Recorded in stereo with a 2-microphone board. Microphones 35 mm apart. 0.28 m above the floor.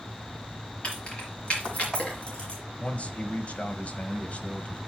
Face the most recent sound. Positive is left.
turn(degrees=40)  # may be behind; listen again after turning